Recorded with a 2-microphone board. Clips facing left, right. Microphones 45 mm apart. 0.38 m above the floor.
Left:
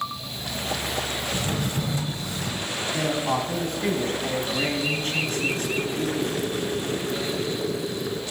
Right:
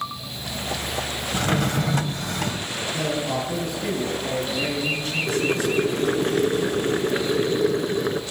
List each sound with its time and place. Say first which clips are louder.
1.3 s a drawer: right 9 dB; 65° right (ahead or behind), 1.0 m
2.9 s a man speaking: left 1 dB; 45° left (ahead or behind), 3 m
5.3 s boiling: right 4 dB; 50° right (ahead or behind), 0.9 m